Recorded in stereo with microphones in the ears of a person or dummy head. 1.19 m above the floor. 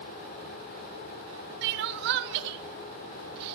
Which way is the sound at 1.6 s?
55° right (ahead or behind).